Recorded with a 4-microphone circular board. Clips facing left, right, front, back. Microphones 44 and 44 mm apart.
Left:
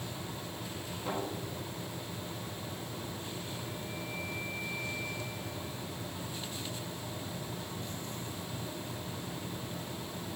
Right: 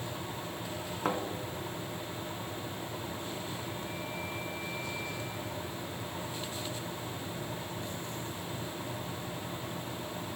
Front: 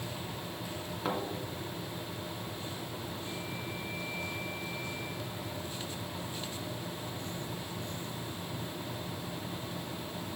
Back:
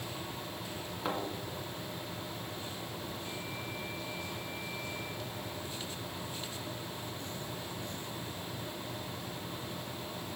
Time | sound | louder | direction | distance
1.1 | a thud | right 5 dB, front 2 dB | 90° right | 1.9 m